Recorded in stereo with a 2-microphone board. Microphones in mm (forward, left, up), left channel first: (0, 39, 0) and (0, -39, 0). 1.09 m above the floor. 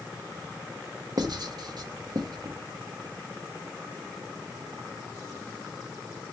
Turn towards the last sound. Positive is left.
turn(degrees=-55)  # may be behind; listen again after turning